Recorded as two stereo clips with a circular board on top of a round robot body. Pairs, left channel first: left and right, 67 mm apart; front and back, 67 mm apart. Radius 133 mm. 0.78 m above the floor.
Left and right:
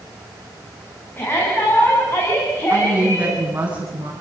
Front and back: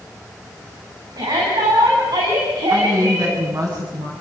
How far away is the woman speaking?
About 9 m.